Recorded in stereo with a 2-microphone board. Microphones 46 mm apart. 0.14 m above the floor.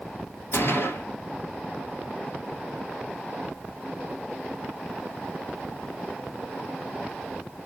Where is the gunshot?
60° left (ahead or behind), 1.6 m.